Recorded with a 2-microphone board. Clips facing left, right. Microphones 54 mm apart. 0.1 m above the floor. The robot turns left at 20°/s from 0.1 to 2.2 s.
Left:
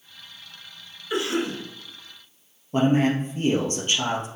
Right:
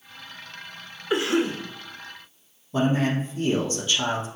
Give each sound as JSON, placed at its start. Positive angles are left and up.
{"t": 1.1, "sound": "a cough", "side_deg": -25, "distance_m": 1.2}
{"t": 2.7, "sound": "a man speaking", "side_deg": 50, "distance_m": 2.0}